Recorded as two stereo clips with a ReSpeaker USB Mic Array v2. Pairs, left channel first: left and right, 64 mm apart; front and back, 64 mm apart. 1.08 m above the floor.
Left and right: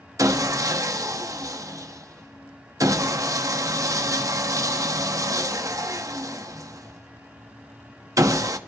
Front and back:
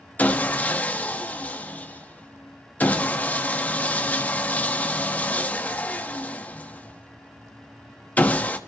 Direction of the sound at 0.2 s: 65° right.